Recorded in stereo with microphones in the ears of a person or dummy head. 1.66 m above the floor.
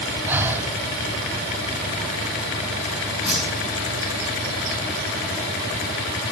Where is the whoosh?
5° right (ahead or behind), 4.5 m.